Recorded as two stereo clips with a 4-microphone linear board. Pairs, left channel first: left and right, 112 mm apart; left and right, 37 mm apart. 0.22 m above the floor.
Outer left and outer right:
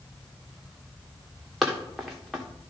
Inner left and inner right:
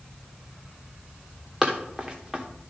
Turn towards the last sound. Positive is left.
turn(degrees=0)  # may be behind; listen again after turning